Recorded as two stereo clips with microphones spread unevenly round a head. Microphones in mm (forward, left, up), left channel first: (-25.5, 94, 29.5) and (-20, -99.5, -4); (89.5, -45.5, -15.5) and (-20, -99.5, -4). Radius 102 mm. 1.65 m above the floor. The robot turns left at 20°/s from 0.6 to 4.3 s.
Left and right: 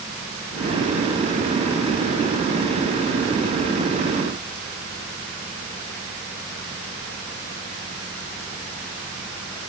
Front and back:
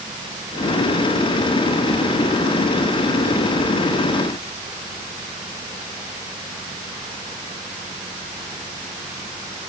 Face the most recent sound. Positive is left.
No sound to turn to.